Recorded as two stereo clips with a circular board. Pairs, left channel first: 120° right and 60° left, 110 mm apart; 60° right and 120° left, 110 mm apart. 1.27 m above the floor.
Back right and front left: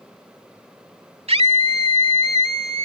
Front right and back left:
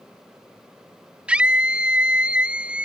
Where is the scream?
40° left.